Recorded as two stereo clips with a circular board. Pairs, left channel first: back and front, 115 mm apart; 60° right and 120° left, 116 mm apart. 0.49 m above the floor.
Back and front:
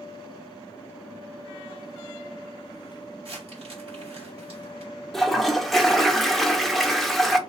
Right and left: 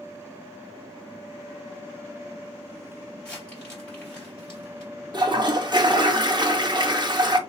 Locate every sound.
3.2 s crumpling: 20° left, 2.5 m
5.1 s a toilet flushing: 95° left, 0.6 m